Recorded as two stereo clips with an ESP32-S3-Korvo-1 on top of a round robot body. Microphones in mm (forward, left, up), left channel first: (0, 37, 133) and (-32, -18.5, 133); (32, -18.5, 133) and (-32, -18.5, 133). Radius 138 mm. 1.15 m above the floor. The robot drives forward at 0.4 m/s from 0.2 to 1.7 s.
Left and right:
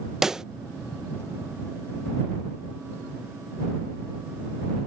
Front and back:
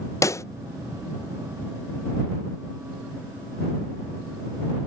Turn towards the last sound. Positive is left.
turn(degrees=-60)